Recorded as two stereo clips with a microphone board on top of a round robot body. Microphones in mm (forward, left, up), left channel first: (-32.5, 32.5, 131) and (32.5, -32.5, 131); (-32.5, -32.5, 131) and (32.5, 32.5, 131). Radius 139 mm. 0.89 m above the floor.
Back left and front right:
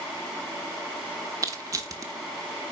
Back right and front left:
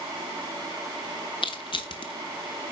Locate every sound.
1.4 s crushing: 100° right, 1.1 m